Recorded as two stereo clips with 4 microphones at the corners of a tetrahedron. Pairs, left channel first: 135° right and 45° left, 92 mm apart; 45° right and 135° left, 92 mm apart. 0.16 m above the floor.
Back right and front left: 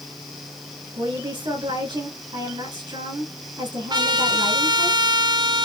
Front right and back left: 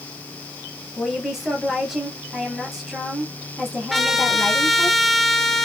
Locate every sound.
1.0 s a woman speaking: 50° left, 3 m
3.9 s a trumpet: 45° left, 0.7 m